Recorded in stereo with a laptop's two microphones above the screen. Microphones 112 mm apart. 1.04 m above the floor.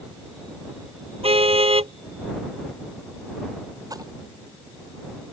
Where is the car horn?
60° right (ahead or behind).